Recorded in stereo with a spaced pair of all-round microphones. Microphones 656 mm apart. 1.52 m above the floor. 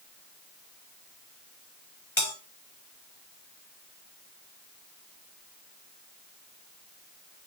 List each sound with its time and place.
2.2 s a bell: 45° left (ahead or behind), 2.0 m